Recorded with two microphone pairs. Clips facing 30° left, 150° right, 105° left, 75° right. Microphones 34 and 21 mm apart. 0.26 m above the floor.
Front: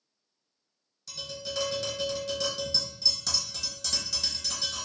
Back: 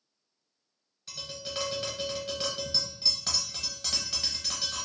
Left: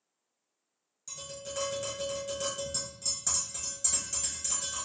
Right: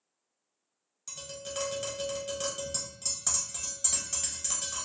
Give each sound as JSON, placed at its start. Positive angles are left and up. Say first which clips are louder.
{"t": 1.1, "sound": "tapping", "louder": "front 2 dB, right 1 dB", "azimuth_deg": -125, "distance_m": 0.9}